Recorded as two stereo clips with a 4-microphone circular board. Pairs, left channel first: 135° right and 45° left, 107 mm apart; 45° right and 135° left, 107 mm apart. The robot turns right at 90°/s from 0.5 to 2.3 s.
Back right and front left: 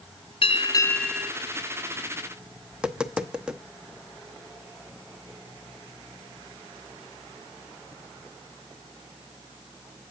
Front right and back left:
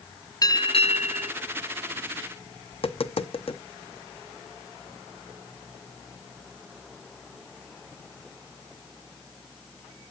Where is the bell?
100° right, 0.5 m; by 1.3 s 25° right, 0.5 m.